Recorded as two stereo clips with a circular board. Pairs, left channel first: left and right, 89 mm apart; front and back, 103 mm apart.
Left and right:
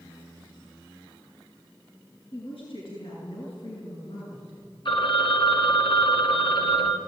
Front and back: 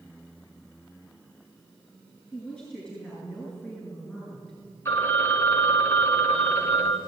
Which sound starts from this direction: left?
A woman speaking, at 2.3 s.